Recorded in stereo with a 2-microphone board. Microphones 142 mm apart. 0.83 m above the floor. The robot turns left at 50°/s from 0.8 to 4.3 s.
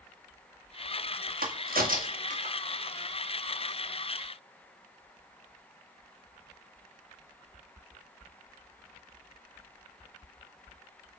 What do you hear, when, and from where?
1.4 s a crack: 70° right (ahead or behind), 1.6 m; by 2.5 s 45° right (ahead or behind), 1.6 m